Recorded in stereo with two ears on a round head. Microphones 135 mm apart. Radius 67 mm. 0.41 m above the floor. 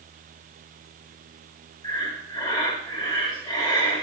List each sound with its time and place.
1.8 s breathing: 30° left (ahead or behind), 1.5 m